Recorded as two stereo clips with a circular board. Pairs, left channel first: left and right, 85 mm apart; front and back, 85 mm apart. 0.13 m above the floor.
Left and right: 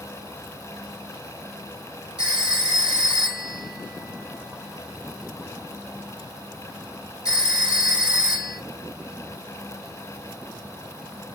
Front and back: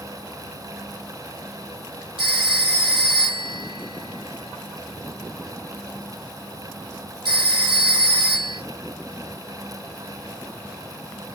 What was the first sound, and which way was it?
A phone ringing, 170° right.